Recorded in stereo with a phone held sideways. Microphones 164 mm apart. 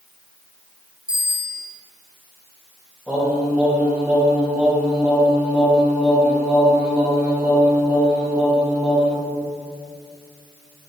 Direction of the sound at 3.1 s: 10° right (ahead or behind).